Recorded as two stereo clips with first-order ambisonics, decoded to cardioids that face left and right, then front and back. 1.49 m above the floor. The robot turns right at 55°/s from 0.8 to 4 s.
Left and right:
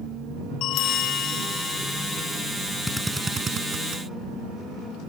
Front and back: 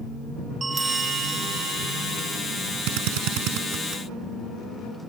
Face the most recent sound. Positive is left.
turn(degrees=-125)